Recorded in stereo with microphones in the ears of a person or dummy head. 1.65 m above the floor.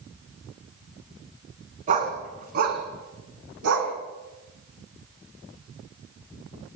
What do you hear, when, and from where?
1.9 s a dog barking: 35° right (ahead or behind), 4 m; by 3.9 s 65° right (ahead or behind), 4.5 m